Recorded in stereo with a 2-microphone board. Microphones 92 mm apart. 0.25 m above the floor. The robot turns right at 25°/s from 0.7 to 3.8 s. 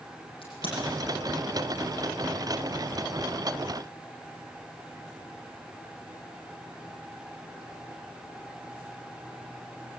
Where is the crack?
70° left (ahead or behind), 9.5 m.